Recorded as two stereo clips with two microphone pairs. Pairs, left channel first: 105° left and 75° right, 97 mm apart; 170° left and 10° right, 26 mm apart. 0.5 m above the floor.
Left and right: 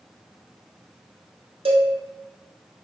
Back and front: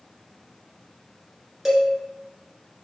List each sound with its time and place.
1.6 s a cowbell: 90° right, 0.9 m